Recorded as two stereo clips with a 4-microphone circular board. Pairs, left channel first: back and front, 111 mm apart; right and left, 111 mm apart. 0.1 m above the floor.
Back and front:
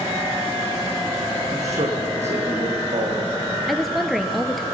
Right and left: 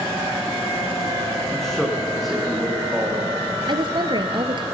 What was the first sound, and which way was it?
A man speaking, 5° right.